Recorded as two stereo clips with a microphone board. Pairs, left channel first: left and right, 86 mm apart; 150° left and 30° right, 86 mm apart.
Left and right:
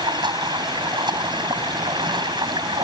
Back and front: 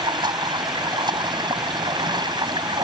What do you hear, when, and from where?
0.0 s running water: 60° right